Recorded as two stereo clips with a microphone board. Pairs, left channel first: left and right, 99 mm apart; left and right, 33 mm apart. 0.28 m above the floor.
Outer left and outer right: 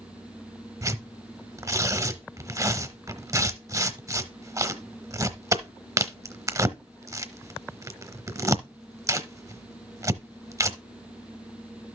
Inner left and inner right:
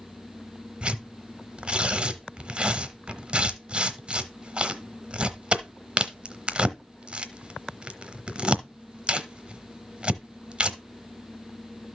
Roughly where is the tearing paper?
Right.